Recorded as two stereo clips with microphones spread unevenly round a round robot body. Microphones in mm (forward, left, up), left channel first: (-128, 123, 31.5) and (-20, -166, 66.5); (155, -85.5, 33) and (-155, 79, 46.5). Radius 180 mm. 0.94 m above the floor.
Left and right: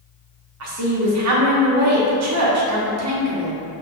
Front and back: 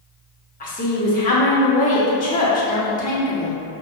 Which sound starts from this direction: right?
A woman speaking, at 0.6 s.